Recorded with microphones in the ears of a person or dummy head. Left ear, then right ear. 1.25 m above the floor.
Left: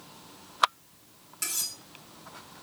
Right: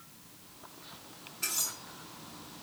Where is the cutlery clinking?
60° left (ahead or behind), 1.8 m.